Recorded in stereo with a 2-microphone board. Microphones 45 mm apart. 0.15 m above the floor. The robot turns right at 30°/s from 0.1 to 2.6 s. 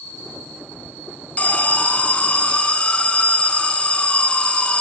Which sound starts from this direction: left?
An alarm, at 1.4 s.